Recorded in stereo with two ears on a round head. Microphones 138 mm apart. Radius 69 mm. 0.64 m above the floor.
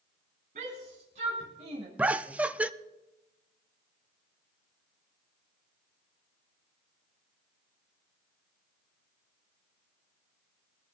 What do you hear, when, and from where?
0.6 s a shout: 55° right (ahead or behind), 5 m; by 1.9 s 40° right (ahead or behind), 3.5 m
2.0 s laughter: 10° right (ahead or behind), 0.5 m